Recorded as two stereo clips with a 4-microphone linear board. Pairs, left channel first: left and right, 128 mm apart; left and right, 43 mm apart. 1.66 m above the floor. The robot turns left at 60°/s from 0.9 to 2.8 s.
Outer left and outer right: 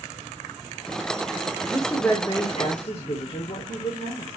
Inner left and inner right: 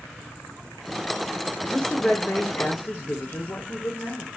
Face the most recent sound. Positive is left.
turn(degrees=115)